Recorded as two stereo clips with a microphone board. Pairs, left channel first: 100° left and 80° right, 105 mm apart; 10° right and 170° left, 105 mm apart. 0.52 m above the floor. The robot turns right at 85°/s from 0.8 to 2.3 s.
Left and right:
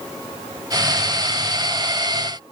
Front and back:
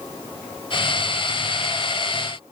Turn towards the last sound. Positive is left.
No sound to turn to.